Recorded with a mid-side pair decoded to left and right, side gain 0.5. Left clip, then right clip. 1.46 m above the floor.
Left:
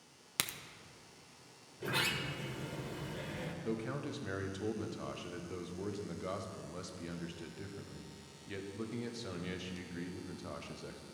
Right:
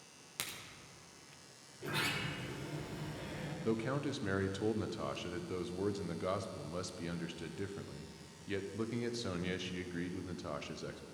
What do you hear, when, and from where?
0.4 s a crack: 50° left, 0.8 m
1.8 s a sliding door: 35° left, 1.6 m
3.6 s a man speaking: 30° right, 0.8 m